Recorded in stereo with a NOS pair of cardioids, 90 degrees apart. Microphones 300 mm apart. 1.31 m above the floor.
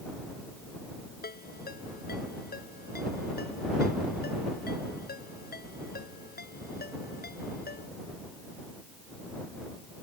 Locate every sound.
1.2 s a ringtone: 30° left